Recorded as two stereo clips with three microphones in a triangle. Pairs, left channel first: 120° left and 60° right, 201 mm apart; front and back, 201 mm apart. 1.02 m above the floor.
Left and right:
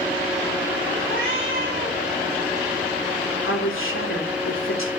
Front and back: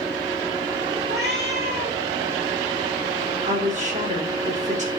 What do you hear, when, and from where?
1.1 s a cat meowing: 140° left, 5 m
3.5 s a woman speaking: 125° left, 2.5 m